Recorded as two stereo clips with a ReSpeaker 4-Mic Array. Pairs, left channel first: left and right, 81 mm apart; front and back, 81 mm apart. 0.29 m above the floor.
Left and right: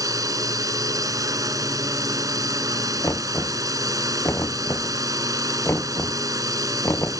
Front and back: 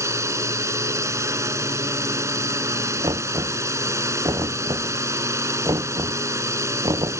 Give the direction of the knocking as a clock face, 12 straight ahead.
7 o'clock.